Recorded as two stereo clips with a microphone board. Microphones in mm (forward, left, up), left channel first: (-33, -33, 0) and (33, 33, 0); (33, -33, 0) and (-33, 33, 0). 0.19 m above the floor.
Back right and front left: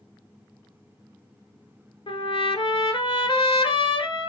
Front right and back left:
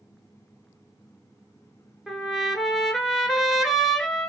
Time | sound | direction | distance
2.1 | a trumpet | 135° right | 0.7 m